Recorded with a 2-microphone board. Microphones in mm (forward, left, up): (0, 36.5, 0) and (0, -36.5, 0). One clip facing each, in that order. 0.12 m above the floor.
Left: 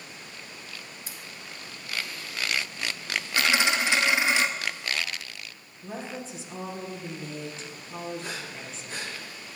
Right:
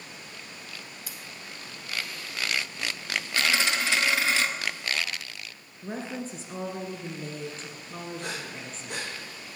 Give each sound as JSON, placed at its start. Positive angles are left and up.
{"t": 1.1, "sound": "scissors", "side_deg": 25, "distance_m": 1.4}
{"t": 3.4, "sound": "a dropped coin", "side_deg": 20, "distance_m": 0.8}
{"t": 5.8, "sound": "a woman speaking", "side_deg": -45, "distance_m": 1.7}
{"t": 8.2, "sound": "breathing", "side_deg": -65, "distance_m": 2.5}